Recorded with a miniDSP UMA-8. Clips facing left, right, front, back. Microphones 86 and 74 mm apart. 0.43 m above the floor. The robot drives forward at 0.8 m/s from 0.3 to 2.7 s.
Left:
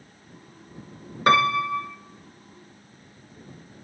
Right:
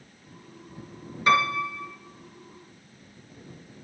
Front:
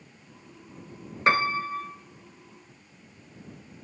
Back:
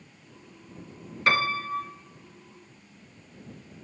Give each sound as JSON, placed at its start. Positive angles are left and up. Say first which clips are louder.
{"t": 1.3, "sound": "a piano", "louder": "left 3 dB, front 2 dB", "azimuth_deg": 60, "distance_m": 1.0}